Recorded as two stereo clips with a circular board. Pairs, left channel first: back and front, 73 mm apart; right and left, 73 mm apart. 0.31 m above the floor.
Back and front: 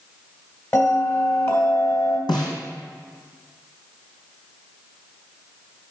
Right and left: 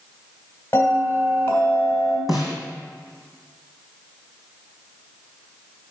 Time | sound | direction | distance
0.7 | a bell | 140° right | 2.0 m
2.3 | a snare drum | 175° left | 2 m